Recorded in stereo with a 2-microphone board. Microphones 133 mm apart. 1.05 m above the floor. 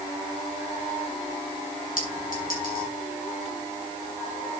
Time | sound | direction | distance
2.0 | a clink | 85° left | 8 m